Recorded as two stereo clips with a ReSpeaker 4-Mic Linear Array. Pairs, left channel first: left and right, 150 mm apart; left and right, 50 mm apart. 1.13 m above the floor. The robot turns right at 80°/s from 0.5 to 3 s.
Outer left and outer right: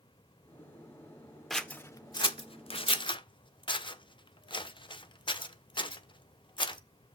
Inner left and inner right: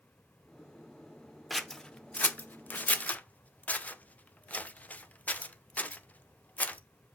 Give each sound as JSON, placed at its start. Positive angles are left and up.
{"t": 1.5, "sound": "scissors", "side_deg": 0, "distance_m": 0.6}